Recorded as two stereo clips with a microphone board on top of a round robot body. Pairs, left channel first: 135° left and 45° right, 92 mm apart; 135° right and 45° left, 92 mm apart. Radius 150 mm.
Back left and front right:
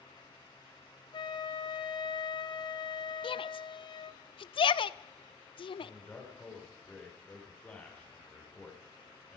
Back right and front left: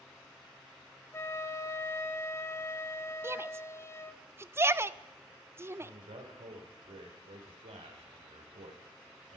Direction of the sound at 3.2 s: 110° left.